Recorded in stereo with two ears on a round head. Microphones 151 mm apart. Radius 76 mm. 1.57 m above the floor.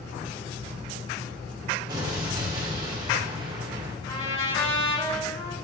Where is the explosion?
25° right (ahead or behind), 1.5 m.